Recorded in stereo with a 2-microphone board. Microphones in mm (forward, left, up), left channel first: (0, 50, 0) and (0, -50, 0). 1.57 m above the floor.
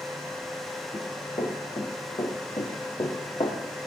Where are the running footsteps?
50° left (ahead or behind), 6 m; by 3.6 s 60° left (ahead or behind), 3.5 m.